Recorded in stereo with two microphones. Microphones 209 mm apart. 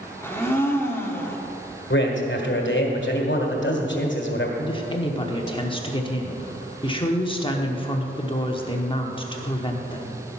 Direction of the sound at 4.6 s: 25° left (ahead or behind).